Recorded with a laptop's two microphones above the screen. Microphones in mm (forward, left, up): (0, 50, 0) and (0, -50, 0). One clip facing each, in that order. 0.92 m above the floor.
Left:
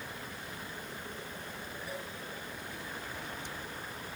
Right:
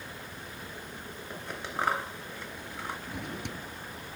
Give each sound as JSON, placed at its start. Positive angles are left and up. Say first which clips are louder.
{"t": 1.3, "sound": "scissors", "louder": "right 6 dB", "side_deg": -80}
{"t": 3.1, "sound": "a drawer", "louder": "right 4 dB", "side_deg": -65}